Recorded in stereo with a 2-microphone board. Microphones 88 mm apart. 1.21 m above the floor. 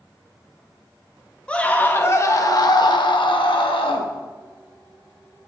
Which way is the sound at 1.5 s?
15° left (ahead or behind).